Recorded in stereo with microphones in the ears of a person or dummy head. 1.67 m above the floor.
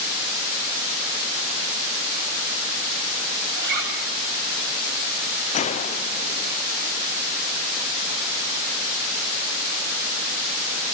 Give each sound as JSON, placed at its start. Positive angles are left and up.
{"t": 3.6, "sound": "a zipper", "side_deg": -50, "distance_m": 9.0}
{"t": 5.5, "sound": "a gunshot", "side_deg": 30, "distance_m": 0.6}